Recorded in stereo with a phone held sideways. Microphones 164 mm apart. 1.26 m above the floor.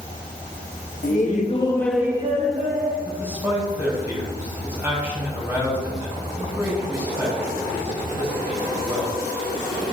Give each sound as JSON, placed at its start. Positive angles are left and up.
{"t": 1.0, "sound": "laughter", "side_deg": 60, "distance_m": 1.3}
{"t": 3.0, "sound": "a man speaking", "side_deg": -15, "distance_m": 3.0}